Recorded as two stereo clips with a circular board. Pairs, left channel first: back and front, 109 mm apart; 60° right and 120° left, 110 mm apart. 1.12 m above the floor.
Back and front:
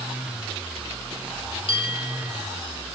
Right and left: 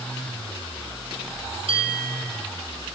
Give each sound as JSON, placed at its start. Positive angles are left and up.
{"t": 1.7, "sound": "a bell", "azimuth_deg": 150, "distance_m": 5.5}